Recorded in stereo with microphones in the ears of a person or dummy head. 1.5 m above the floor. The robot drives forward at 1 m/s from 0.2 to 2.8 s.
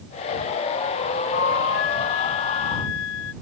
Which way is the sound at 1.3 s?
65° left (ahead or behind).